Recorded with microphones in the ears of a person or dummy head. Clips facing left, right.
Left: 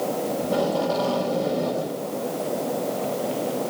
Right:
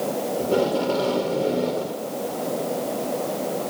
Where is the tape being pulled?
35° right (ahead or behind), 3 m.